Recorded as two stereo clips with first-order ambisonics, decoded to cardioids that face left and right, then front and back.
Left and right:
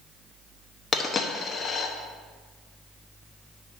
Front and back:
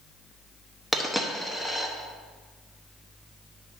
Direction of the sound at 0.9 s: 90° left.